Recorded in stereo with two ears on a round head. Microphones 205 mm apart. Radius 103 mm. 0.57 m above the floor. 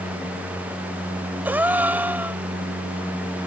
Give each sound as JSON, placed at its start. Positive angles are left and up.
{"t": 1.4, "sound": "a gasp", "side_deg": -10}